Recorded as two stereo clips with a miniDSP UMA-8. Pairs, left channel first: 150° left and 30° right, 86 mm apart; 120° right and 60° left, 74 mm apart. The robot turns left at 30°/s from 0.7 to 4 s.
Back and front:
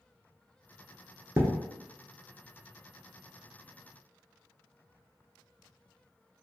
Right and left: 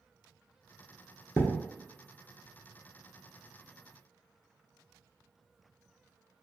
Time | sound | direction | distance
1.4 | a thud | 75° right | 0.7 m